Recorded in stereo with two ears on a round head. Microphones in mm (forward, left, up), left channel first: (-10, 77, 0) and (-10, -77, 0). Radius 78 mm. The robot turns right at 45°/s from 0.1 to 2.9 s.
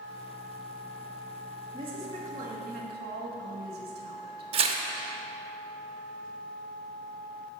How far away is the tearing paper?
About 0.8 m.